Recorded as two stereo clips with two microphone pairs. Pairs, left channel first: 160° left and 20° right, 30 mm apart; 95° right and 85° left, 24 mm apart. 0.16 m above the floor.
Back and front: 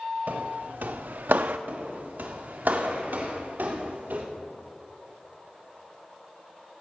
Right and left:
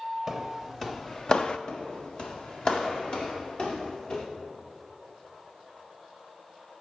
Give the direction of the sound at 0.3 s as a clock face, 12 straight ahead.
12 o'clock.